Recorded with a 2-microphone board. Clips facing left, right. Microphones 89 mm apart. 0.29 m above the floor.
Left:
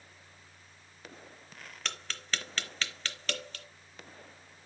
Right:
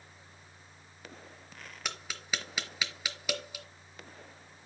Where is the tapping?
10° right (ahead or behind), 0.8 m.